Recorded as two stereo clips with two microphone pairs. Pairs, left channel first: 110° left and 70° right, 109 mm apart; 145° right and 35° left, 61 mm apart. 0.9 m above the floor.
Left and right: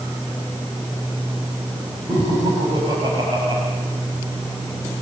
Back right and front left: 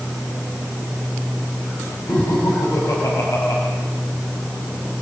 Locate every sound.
2.1 s laughter: 120° right, 6 m